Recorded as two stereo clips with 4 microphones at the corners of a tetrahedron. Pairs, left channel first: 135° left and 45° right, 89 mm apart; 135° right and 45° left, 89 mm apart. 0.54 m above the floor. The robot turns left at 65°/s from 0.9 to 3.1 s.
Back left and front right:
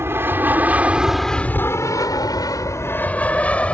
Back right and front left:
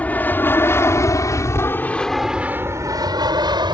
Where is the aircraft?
75° right; by 3.7 s 60° left.